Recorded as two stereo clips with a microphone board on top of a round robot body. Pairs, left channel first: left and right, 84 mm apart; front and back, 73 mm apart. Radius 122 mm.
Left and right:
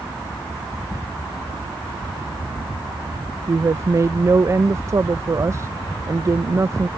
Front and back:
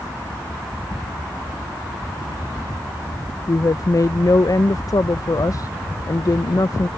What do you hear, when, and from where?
3.5 s a woman speaking: 35° right